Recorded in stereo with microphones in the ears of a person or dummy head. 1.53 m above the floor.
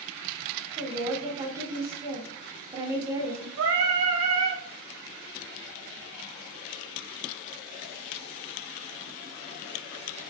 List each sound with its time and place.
0.8 s a woman speaking: 15° right (ahead or behind), 1.0 m
3.6 s singing: 75° right (ahead or behind), 1.1 m